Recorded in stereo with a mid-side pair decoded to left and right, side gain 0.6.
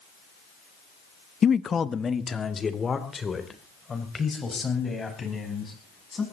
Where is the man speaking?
35° left, 0.5 m; by 6.2 s 25° left, 8 m.